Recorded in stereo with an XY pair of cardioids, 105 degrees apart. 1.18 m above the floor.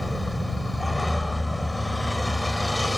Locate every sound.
0.0 s a vehicle: 10° left